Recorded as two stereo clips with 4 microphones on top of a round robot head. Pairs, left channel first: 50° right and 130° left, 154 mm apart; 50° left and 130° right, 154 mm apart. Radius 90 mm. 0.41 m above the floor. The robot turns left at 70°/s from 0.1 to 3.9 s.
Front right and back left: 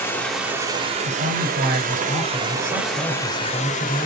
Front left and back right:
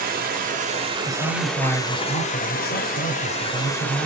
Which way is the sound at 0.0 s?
125° right.